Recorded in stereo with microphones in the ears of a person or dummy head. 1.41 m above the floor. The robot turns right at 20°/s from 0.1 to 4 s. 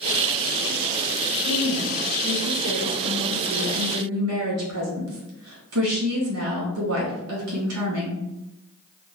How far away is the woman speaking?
About 1.9 m.